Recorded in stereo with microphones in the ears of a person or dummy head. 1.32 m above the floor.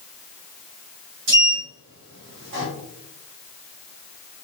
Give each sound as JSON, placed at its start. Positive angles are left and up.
{"t": 1.3, "sound": "a sliding door", "side_deg": -60, "distance_m": 2.0}